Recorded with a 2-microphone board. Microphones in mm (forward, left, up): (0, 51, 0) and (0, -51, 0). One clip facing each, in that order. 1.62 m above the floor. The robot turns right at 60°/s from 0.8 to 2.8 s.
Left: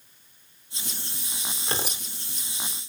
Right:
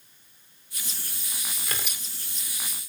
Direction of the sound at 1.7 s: 25° left (ahead or behind).